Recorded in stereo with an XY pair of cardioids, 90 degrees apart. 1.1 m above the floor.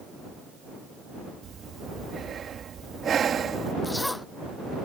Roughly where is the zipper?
Ahead.